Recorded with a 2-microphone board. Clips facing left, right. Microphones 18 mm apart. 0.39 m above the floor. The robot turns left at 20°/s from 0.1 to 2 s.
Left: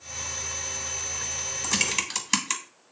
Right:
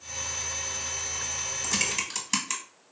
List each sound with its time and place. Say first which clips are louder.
1.6 s typing on a keyboard: left 3 dB; 15° left (ahead or behind), 0.8 m; by 2.6 s 20° left (ahead or behind), 0.8 m